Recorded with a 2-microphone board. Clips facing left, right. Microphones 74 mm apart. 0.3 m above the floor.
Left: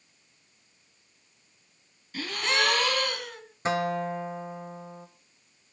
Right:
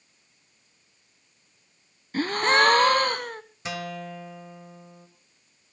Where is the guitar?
35° left (ahead or behind), 1.7 m.